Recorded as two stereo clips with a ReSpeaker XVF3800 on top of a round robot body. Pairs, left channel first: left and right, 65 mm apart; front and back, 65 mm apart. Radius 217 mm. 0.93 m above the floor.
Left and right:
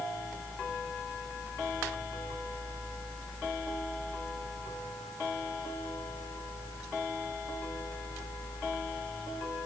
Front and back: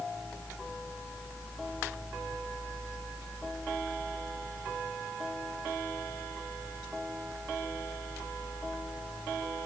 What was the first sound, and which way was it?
Only background noise.